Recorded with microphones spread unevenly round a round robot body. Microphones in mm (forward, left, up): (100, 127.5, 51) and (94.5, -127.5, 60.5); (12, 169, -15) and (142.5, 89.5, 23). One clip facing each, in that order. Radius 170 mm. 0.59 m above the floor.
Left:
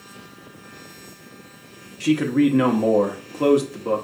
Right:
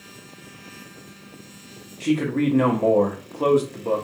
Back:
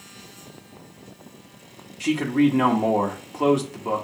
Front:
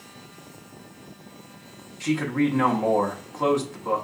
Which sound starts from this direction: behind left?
A man speaking, at 2.0 s.